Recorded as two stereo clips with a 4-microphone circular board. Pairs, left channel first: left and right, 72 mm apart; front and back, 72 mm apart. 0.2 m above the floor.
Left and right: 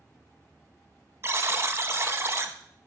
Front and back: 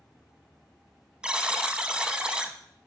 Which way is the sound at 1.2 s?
110° right.